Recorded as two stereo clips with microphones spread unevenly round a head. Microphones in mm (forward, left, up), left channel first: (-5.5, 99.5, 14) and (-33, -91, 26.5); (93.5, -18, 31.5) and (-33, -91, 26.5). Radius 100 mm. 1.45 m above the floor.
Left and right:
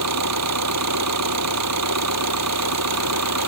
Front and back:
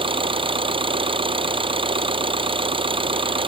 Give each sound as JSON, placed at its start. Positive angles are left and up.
{"t": 0.0, "sound": "an engine running", "azimuth_deg": -95}